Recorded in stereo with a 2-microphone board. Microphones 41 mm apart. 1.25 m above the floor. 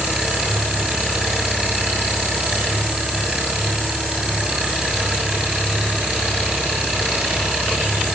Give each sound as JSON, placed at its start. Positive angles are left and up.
{"t": 0.0, "sound": "an engine running", "side_deg": -15, "distance_m": 6.5}